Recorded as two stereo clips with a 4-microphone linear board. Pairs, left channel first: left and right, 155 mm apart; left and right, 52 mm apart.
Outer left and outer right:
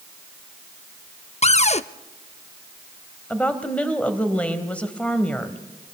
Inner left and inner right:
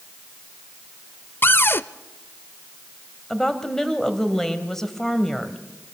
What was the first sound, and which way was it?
A cupboard door, 45° left (ahead or behind).